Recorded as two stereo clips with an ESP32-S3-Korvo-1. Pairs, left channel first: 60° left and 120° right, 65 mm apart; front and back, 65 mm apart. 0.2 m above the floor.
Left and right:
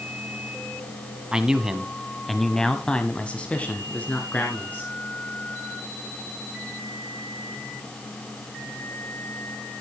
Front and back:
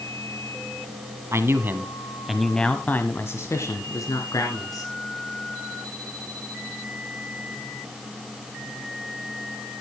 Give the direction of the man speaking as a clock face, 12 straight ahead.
6 o'clock.